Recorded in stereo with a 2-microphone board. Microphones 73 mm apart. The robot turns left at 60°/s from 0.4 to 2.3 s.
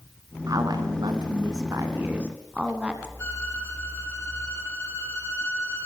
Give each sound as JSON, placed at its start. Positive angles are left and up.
{"t": 0.5, "sound": "a woman speaking", "azimuth_deg": -55, "distance_m": 2.5}
{"t": 3.2, "sound": "a violin", "side_deg": 35, "distance_m": 4.5}